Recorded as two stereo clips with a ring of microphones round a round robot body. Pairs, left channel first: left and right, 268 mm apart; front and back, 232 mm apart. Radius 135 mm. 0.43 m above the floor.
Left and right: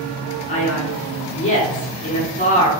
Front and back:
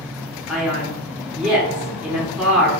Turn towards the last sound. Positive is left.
turn(degrees=100)